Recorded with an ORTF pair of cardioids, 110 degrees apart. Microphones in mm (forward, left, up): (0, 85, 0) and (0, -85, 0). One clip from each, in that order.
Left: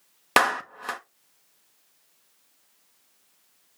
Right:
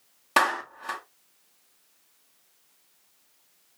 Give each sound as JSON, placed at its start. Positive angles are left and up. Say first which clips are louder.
{"t": 0.4, "sound": "a clap", "louder": "left 2 dB", "azimuth_deg": 60, "distance_m": 1.4}